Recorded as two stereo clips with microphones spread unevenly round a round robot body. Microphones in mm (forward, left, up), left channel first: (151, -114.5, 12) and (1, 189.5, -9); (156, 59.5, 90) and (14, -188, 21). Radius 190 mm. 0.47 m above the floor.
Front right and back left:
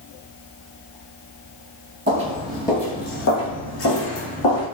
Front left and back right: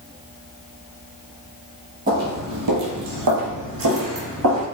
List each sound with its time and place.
2.1 s footsteps: 165° left, 0.6 m; by 4.7 s 90° right, 1.6 m